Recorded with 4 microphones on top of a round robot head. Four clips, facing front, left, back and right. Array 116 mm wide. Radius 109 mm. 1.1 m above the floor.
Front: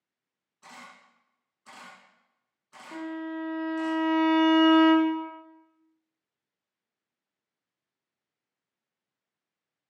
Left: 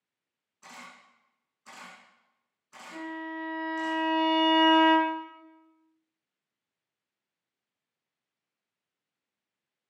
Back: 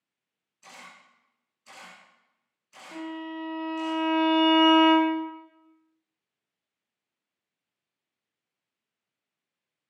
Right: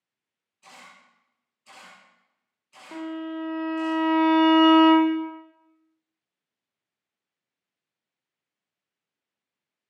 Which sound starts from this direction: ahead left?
A camera shutter, at 0.6 s.